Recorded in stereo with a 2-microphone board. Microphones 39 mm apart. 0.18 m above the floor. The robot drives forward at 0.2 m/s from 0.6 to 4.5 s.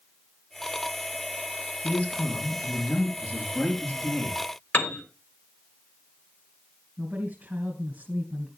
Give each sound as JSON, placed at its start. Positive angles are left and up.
{"t": 1.8, "sound": "a man speaking", "side_deg": 40, "distance_m": 4.0}
{"t": 4.7, "sound": "a piano", "side_deg": 55, "distance_m": 2.5}
{"t": 7.0, "sound": "a woman speaking", "side_deg": -35, "distance_m": 2.0}